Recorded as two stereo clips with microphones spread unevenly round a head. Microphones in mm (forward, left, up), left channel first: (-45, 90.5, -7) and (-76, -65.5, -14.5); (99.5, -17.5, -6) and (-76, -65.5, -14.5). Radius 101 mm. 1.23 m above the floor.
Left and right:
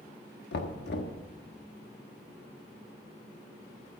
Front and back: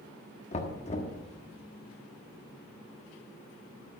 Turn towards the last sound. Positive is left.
turn(degrees=70)